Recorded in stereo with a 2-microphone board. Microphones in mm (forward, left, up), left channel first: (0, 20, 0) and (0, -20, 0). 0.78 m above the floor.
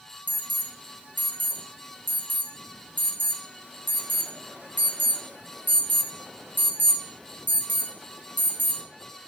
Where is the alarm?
45° right (ahead or behind), 0.6 m.